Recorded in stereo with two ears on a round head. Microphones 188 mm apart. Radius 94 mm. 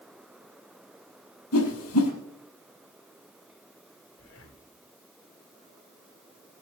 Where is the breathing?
75° left (ahead or behind), 4 m.